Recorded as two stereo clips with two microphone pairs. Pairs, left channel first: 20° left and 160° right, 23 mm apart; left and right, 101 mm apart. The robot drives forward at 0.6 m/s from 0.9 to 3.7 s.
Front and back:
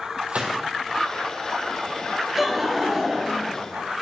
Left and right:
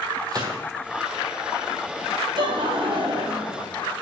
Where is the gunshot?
135° right, 2.5 m.